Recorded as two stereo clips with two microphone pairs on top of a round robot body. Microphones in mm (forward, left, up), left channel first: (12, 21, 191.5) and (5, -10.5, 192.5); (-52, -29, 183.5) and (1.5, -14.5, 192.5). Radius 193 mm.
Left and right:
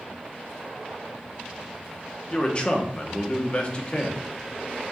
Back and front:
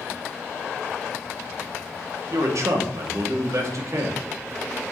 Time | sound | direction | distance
2.3 | a man speaking | 30° left | 1.5 m